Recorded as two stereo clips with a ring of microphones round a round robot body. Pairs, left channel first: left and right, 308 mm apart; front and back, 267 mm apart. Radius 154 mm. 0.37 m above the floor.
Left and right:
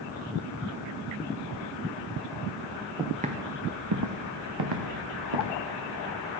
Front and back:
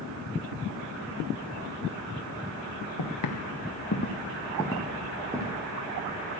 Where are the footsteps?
10° right, 1.9 m; by 5.6 s 100° right, 3 m.